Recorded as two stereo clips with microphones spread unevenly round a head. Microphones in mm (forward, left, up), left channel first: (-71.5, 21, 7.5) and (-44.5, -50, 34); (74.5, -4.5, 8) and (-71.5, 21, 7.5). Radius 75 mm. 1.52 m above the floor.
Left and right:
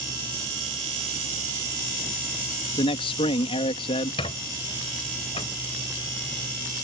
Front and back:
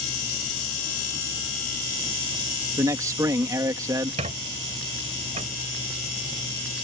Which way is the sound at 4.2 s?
125° left.